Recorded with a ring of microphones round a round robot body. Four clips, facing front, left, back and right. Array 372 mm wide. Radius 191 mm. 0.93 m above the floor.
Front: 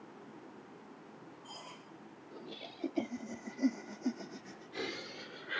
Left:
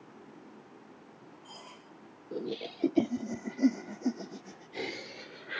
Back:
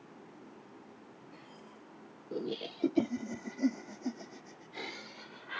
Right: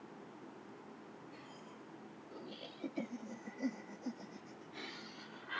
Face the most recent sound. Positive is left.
turn(degrees=50)